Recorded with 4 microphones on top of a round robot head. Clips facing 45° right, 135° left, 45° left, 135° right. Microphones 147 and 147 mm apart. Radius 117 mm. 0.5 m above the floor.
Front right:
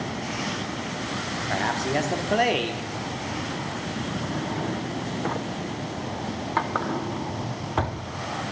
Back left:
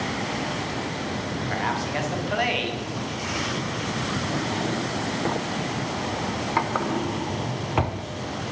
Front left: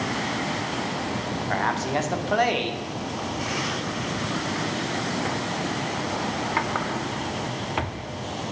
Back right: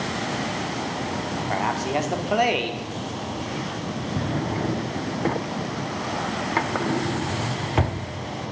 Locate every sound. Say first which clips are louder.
1.5 s a man speaking: front right 4 dB, back right 1 dB; 60° right, 1.5 m
4.2 s a drawer: back left 2 dB, back right 2 dB; 150° right, 0.6 m